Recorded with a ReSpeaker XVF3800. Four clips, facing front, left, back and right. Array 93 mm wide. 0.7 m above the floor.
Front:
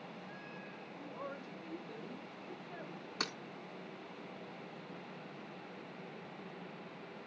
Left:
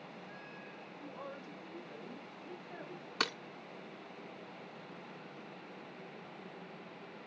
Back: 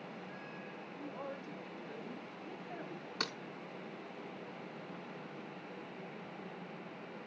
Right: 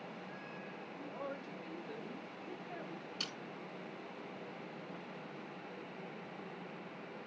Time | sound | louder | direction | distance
1.0 | a woman speaking | right 3 dB, back 1 dB | 115° right | 4 m
3.2 | breaking glass | left 14 dB, even | 85° left | 0.5 m